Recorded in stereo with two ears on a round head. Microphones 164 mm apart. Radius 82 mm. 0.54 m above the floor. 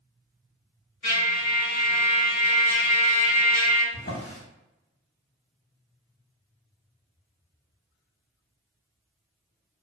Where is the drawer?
45° left (ahead or behind), 0.7 m.